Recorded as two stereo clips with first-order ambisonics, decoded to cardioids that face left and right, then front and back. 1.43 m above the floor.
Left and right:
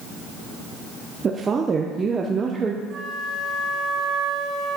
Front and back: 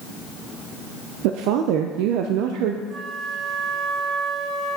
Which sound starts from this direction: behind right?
A flute, at 2.9 s.